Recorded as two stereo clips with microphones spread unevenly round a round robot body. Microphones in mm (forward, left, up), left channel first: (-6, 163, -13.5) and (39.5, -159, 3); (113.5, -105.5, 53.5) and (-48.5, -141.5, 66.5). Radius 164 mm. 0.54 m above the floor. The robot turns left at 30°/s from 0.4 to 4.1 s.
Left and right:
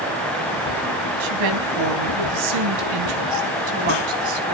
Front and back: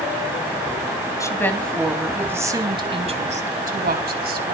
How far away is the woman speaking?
About 4 m.